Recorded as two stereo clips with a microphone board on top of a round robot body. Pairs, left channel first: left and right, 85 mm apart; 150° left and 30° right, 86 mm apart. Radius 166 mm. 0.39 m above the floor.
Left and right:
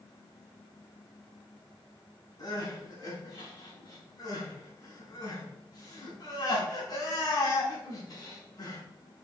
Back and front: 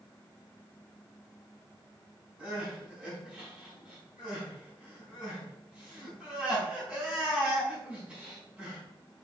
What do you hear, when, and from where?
2.4 s crying: 45° left, 5 m